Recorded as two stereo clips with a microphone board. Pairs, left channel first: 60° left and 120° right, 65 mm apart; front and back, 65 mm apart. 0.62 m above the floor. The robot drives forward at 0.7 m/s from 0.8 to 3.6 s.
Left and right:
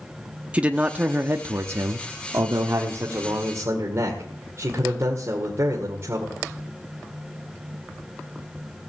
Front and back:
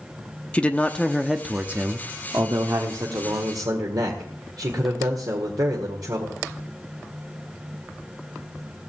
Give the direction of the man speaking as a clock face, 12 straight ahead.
2 o'clock.